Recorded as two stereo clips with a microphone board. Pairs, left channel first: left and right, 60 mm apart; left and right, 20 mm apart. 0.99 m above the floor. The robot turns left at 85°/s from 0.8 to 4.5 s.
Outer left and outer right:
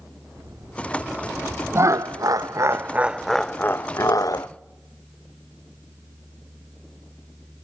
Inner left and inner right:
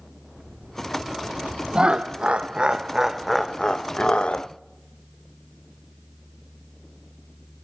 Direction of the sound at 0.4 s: 80° right.